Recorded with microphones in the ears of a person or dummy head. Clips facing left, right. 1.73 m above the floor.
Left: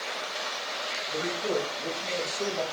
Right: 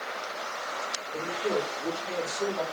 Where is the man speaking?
60° left (ahead or behind), 3.5 m; by 2.6 s 25° left (ahead or behind), 2.5 m.